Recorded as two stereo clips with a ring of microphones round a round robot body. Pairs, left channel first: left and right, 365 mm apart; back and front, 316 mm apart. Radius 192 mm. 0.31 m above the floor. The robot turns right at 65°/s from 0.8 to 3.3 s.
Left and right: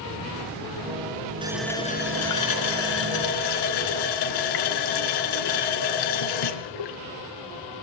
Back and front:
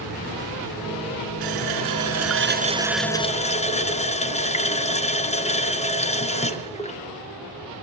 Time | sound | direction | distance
1.4 | a running tap | 15° right | 3 m